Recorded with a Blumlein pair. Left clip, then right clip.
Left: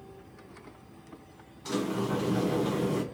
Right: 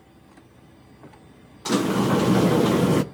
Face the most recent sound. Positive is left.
turn(degrees=-30)